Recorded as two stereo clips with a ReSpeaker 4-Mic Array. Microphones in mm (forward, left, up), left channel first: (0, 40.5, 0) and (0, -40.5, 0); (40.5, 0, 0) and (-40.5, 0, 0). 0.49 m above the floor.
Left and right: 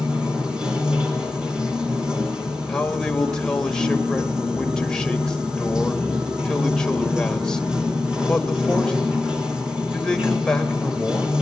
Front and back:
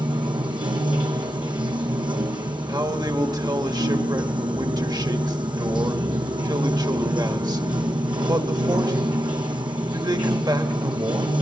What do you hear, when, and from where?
0.0 s running water: 170° right, 2.5 m
2.7 s a man speaking: 170° left, 2 m